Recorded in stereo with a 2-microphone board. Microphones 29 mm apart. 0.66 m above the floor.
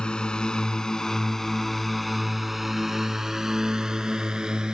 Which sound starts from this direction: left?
A drone, at 0.0 s.